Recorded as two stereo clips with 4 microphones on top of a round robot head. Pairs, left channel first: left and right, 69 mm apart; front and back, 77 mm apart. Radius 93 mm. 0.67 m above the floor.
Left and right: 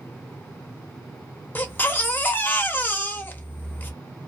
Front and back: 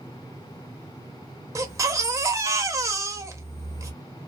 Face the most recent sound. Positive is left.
turn(degrees=145)